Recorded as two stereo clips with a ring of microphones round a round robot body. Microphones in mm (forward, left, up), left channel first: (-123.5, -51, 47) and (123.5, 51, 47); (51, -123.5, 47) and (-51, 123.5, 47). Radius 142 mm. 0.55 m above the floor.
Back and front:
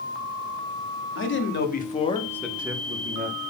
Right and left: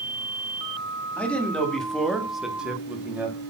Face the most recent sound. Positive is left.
turn(degrees=35)